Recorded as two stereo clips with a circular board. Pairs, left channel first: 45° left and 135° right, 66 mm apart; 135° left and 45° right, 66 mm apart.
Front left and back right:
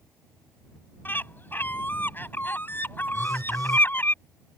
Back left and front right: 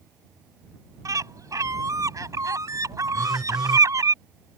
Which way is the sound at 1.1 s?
15° right.